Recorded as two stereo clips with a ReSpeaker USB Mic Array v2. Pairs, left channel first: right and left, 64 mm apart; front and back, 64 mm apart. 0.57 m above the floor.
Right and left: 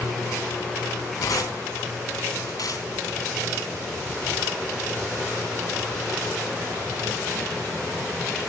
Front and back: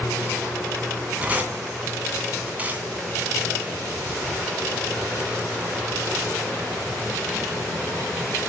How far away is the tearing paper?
About 3.5 m.